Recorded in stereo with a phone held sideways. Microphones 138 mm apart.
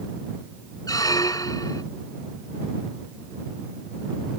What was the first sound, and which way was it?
A squeak, 25° left (ahead or behind).